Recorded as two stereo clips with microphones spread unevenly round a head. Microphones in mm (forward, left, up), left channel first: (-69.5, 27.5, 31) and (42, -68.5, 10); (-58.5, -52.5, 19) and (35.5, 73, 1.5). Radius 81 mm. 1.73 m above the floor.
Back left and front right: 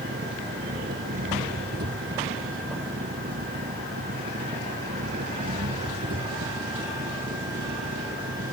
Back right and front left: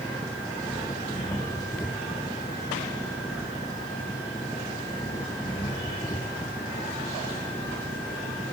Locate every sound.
0.0 s an engine running: 55° right